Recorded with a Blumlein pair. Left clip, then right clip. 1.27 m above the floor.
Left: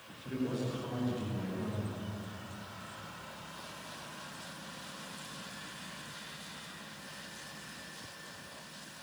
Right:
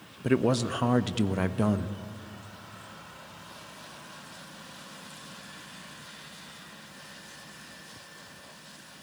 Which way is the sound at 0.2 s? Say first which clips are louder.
Right 11 dB; 40° right.